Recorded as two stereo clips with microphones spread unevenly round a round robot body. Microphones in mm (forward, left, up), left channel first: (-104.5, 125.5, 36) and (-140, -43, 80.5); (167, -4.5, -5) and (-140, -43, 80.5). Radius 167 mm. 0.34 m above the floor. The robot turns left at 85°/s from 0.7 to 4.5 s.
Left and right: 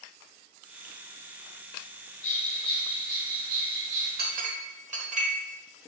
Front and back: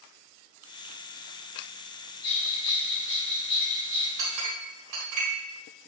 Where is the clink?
125° right, 1.5 m; by 5.3 s 150° right, 1.5 m.